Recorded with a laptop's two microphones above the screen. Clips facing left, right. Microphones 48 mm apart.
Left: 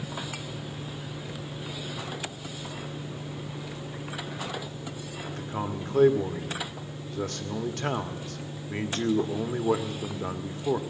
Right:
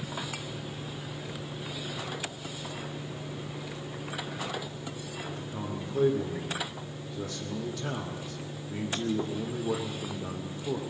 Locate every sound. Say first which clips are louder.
5.3 s a man speaking: left 6 dB; 60° left (ahead or behind), 2.0 m